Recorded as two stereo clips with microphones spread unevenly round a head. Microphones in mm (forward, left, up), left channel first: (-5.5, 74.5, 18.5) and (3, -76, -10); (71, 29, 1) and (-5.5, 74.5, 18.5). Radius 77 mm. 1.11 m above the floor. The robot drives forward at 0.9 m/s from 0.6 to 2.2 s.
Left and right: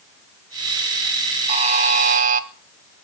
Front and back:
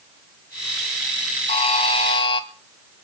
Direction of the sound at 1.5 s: 35° right.